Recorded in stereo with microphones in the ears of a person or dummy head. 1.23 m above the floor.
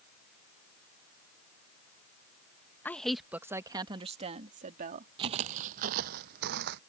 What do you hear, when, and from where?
2.9 s a woman speaking: 10° left (ahead or behind); by 5.1 s 50° right (ahead or behind)
5.2 s footsteps: 30° right (ahead or behind); by 6.8 s 60° right (ahead or behind)